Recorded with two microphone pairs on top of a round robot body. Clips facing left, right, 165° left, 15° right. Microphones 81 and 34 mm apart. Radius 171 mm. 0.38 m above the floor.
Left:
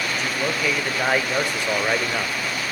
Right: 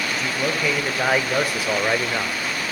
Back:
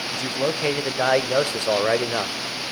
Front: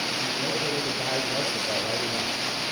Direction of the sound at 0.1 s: Straight behind.